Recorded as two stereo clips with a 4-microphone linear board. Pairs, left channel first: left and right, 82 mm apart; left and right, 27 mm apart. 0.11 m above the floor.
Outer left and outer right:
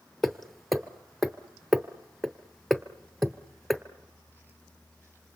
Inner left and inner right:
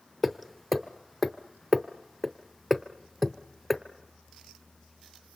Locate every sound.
0.2 s hammering: centre (ahead or behind), 0.9 m